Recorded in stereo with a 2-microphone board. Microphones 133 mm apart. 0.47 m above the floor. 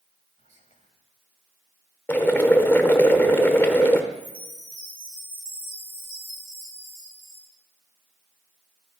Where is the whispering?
60° left (ahead or behind), 2 m.